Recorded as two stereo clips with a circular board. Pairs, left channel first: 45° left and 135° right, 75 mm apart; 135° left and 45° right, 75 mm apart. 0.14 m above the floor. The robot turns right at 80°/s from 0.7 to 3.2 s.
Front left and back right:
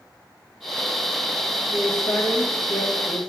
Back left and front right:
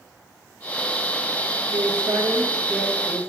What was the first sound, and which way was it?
A woman speaking, 35° right.